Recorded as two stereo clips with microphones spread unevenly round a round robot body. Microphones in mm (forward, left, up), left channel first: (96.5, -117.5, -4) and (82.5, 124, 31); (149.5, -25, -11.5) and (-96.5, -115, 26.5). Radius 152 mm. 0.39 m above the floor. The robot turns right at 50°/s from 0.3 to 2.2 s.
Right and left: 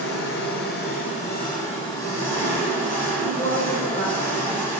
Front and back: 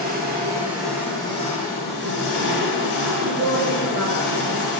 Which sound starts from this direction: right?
An engine running, at 0.0 s.